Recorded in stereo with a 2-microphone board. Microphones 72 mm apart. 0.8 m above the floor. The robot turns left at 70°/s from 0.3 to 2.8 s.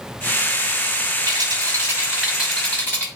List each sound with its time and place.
1.3 s a rattle: 95° right, 6 m; by 3.1 s 155° left, 6 m